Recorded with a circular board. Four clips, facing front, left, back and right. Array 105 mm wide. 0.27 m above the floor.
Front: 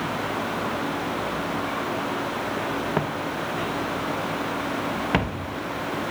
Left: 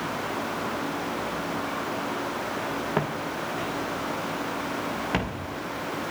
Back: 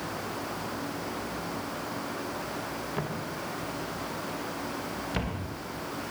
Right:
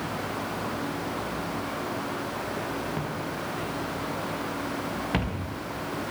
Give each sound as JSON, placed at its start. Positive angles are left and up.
{"t": 3.0, "sound": "footsteps", "azimuth_deg": 40, "distance_m": 3.5}